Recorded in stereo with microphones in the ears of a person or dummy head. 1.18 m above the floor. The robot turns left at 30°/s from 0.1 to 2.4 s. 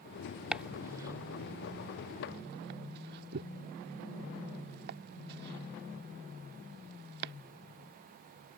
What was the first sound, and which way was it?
Chopping, 5° right (ahead or behind).